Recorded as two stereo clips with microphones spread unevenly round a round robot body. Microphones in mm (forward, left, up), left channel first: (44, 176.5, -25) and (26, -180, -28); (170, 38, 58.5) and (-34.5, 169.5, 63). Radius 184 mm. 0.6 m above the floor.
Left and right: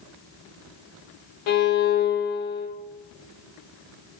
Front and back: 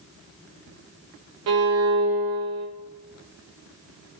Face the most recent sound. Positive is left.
turn(degrees=115)